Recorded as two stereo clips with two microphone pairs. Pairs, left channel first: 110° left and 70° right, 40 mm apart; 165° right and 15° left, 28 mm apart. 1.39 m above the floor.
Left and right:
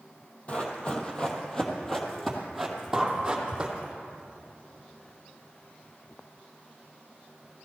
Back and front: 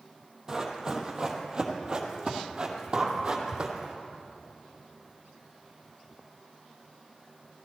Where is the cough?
No cough in this recording.